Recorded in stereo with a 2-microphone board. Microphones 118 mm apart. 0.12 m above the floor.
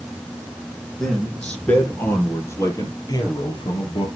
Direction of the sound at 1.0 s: 5° left (ahead or behind).